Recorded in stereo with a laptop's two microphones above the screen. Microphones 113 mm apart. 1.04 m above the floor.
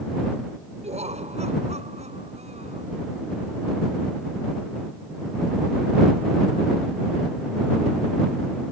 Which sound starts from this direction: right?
Laughter, at 0.8 s.